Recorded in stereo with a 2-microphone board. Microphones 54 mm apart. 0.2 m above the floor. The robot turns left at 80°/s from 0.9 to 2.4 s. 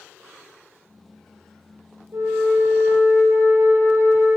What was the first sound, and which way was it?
A flute, 60° right (ahead or behind).